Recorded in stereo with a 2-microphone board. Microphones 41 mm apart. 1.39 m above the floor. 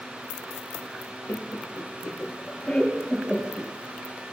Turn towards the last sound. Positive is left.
turn(degrees=10)  # may be behind; listen again after turning